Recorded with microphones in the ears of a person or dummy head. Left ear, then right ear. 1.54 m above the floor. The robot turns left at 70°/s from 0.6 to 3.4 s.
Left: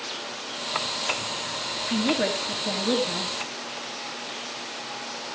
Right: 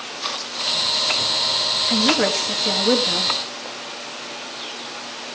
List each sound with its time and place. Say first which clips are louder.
1.9 s a woman speaking: right 4 dB; 20° right, 2.5 m; by 3.3 s 125° right, 2.5 m